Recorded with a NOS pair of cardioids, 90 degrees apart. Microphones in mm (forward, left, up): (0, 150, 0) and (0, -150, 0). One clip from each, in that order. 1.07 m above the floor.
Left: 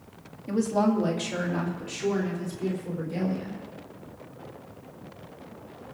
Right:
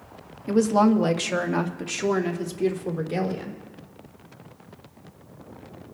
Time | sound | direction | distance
0.5 | a woman speaking | 35° right | 1.2 m